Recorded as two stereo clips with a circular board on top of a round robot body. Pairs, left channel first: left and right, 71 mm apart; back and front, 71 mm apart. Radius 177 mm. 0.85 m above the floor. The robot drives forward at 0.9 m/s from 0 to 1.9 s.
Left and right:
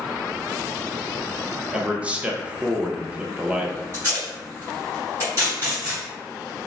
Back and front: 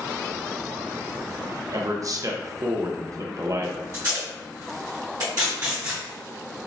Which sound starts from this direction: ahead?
A man speaking, at 1.7 s.